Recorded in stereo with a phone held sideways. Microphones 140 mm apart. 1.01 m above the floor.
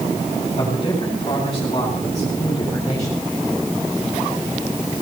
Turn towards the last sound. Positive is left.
turn(degrees=25)  # may be behind; listen again after turning